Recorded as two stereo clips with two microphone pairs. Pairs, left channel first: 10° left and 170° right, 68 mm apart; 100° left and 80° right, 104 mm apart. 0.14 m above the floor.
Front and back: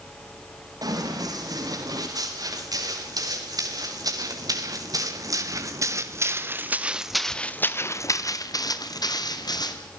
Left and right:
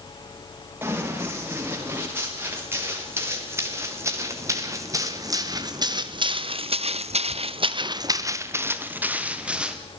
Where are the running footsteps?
150° right, 10 m; by 9.8 s straight ahead, 4 m.